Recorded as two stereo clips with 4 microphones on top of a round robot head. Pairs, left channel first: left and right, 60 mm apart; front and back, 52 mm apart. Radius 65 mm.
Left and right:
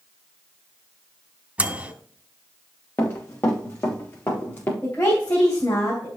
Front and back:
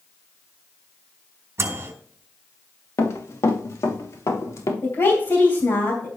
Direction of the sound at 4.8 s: 20° left.